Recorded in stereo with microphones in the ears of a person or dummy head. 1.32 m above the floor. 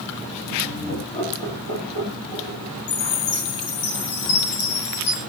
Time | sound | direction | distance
0.6 | laughter | 20° left (ahead or behind) | 3.5 m
2.9 | a chime | 75° left (ahead or behind) | 5.5 m